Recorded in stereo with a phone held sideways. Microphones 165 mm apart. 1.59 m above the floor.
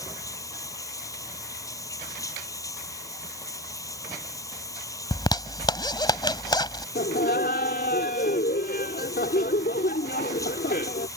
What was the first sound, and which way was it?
Running water, 20° left (ahead or behind).